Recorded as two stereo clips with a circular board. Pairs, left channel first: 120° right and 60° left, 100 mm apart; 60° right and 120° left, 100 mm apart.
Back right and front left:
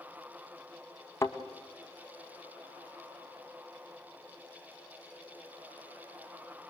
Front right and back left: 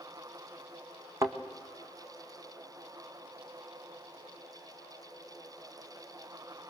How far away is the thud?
About 1.7 m.